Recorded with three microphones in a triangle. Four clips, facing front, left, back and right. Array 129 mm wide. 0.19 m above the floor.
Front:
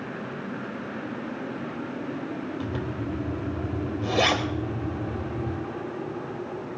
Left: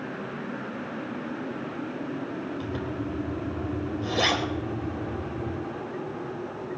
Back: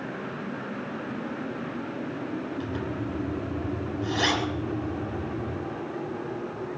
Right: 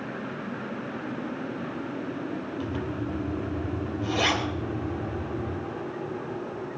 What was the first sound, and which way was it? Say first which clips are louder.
A zipper: even, even; 15° left.